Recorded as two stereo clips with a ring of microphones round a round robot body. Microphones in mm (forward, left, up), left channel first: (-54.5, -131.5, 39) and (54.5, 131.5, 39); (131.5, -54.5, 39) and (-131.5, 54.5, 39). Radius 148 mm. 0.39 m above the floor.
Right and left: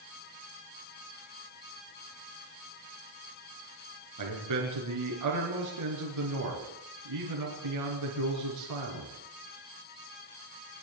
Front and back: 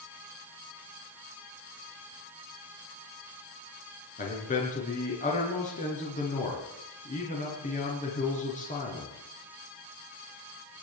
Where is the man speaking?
40° left, 5 m.